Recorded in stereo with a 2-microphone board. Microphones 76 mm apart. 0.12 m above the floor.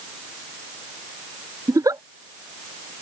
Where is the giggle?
50° right (ahead or behind).